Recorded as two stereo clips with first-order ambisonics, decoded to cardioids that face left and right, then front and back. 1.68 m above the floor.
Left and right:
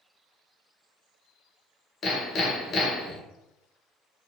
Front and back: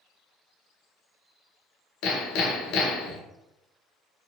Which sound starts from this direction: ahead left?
Hammering, at 2.0 s.